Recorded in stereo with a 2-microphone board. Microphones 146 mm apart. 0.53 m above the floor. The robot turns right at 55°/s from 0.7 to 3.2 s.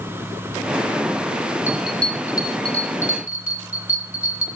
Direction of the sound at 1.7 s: 15° right (ahead or behind).